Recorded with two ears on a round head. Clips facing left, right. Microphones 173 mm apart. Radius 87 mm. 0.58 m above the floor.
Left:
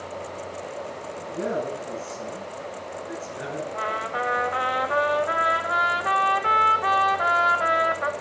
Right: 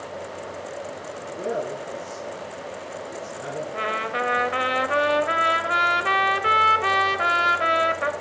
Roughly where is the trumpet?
Right.